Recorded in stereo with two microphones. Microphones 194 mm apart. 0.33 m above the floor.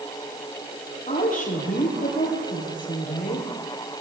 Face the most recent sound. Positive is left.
turn(degrees=45)  # may be behind; listen again after turning